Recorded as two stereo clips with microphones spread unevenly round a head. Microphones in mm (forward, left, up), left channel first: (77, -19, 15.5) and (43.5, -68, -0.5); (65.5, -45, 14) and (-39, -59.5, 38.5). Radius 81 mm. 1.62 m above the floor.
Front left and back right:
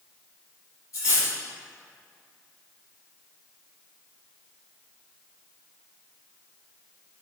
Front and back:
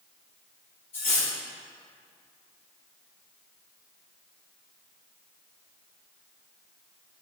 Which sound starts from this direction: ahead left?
Cutlery clinking, at 0.9 s.